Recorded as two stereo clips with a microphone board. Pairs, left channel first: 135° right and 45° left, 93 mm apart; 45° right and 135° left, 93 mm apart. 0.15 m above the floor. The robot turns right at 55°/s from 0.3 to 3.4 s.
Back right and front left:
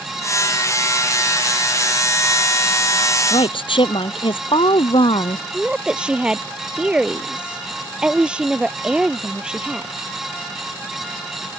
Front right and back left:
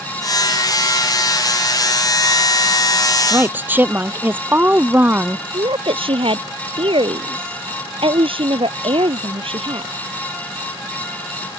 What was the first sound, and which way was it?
A woman speaking, 170° right.